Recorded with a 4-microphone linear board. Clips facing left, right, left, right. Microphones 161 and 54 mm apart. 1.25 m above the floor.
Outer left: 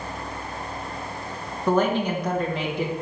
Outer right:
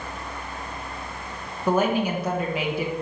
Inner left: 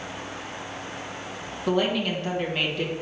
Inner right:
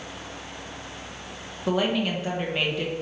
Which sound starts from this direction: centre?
A woman speaking, at 1.7 s.